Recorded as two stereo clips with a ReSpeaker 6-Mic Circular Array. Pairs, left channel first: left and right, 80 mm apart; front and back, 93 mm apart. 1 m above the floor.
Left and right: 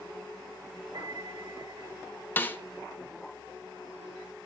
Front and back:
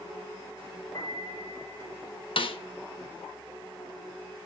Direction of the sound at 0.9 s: 55° right.